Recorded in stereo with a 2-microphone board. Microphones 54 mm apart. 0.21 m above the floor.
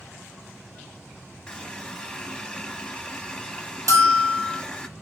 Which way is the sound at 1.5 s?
15° left (ahead or behind).